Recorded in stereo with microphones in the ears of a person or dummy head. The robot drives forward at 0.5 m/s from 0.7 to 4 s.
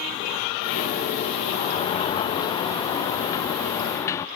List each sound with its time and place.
1.5 s a sliding door: 30° left (ahead or behind); by 4.2 s 15° left (ahead or behind)